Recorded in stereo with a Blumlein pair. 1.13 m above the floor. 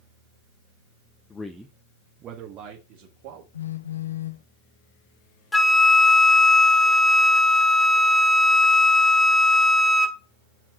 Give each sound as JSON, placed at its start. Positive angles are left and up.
{"t": 1.3, "sound": "a man speaking", "azimuth_deg": 15, "distance_m": 0.9}
{"t": 3.5, "sound": "a phone buzzing", "azimuth_deg": 70, "distance_m": 0.9}
{"t": 5.5, "sound": "a flute", "azimuth_deg": 5, "distance_m": 0.9}